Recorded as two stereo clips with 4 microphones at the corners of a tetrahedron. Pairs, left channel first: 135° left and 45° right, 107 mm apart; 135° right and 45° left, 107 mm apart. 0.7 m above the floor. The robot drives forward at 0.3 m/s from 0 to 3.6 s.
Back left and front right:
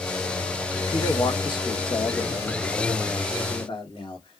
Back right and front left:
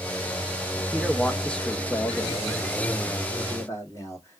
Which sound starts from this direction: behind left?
A man speaking, at 0.9 s.